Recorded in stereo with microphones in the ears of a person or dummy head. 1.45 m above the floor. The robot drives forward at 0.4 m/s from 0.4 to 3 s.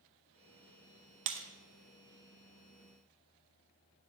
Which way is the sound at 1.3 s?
35° right (ahead or behind).